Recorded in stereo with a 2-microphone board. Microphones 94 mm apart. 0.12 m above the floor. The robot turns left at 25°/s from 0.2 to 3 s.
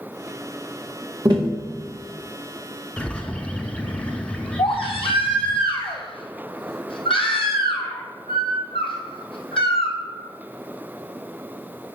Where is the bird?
15° left (ahead or behind), 0.7 m.